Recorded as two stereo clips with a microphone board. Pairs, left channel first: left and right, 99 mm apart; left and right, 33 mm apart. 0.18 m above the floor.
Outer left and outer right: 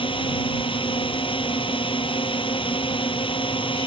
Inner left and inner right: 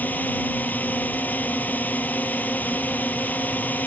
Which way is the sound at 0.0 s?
60° left (ahead or behind).